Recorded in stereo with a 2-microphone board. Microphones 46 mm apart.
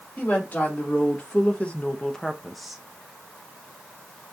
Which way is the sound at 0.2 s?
40° left (ahead or behind).